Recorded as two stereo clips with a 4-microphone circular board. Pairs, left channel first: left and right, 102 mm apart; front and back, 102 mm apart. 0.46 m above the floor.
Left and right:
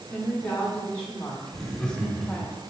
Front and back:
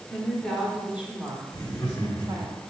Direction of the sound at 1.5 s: 10° left.